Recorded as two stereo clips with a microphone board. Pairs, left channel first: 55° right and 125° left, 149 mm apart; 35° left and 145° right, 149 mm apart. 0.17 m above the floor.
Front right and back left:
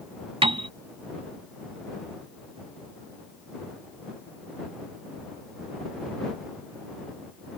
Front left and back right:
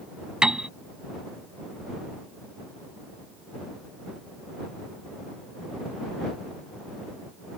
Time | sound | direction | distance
0.4 | a piano | 135° left | ?